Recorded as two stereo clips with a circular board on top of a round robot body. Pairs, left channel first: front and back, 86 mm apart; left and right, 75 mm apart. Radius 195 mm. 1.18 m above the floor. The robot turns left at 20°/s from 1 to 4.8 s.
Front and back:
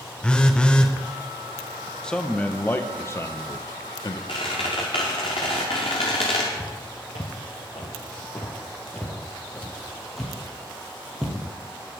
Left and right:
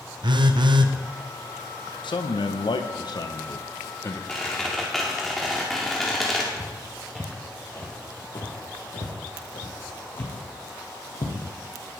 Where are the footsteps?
30° right, 1.6 m; by 11.4 s 95° left, 4 m.